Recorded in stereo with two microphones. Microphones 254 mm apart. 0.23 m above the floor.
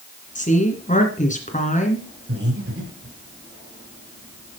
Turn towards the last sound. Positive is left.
turn(degrees=-65)  # may be behind; listen again after turning